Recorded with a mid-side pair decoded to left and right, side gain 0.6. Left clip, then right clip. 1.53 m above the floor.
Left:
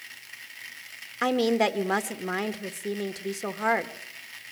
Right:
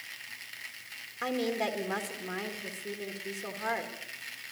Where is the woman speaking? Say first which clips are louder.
Left 8 dB; 45° left, 1.7 m.